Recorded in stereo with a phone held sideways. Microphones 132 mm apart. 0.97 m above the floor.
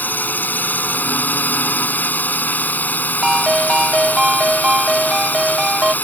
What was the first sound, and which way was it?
A drone, 15° left (ahead or behind).